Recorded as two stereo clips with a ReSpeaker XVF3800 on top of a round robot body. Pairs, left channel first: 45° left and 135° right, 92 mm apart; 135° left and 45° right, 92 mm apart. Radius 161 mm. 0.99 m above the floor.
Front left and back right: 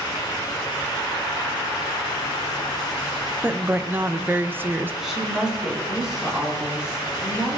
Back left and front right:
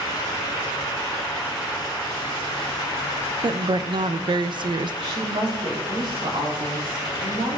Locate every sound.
3.4 s a woman speaking: 70° right, 0.6 m
5.0 s a woman speaking: 55° right, 3.5 m